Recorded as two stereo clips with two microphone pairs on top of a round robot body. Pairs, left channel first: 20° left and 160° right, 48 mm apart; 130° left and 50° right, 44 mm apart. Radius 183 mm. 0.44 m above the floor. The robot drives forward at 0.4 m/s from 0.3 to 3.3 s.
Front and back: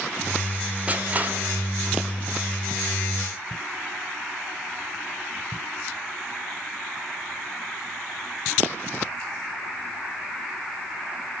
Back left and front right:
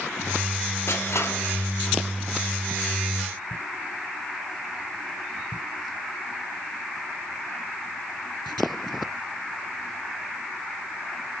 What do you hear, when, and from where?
0.9 s crushing: 135° left, 1.5 m; by 2.0 s 145° left, 1.8 m